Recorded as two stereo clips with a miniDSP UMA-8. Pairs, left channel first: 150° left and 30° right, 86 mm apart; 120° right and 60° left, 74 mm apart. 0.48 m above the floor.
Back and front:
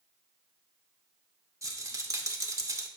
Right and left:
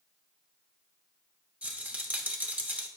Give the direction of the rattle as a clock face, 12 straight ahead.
12 o'clock.